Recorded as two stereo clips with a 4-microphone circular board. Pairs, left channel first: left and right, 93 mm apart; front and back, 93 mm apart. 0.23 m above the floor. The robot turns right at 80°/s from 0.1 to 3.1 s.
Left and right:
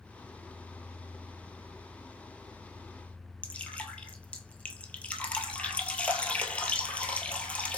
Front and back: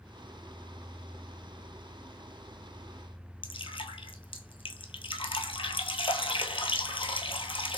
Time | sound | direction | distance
3.4 | dripping | 15° left | 0.9 m